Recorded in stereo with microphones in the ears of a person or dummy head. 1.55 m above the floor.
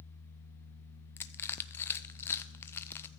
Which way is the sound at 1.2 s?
10° left (ahead or behind).